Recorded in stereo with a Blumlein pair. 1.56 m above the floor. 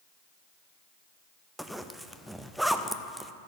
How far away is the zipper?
About 0.5 m.